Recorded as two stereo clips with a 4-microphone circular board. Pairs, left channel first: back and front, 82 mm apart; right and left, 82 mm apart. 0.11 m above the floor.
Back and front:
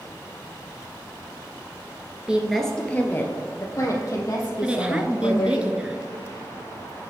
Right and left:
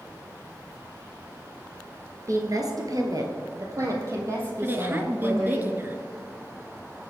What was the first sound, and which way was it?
A woman speaking, 75° left.